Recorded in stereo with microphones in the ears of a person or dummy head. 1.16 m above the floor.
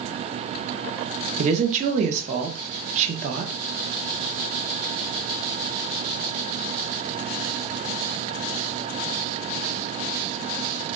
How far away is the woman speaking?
About 0.6 m.